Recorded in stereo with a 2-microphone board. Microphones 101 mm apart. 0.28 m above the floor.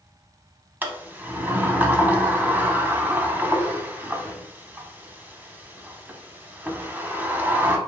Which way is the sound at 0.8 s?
20° right (ahead or behind).